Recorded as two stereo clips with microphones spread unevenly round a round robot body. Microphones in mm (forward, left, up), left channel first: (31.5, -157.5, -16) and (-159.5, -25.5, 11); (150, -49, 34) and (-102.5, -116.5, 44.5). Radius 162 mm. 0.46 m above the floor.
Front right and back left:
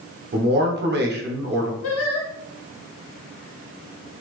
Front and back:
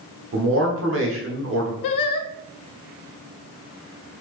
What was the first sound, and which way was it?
A man speaking, straight behind.